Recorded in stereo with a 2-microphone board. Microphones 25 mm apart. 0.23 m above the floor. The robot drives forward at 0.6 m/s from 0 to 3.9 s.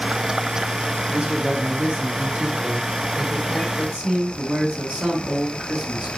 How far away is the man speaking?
About 2.5 m.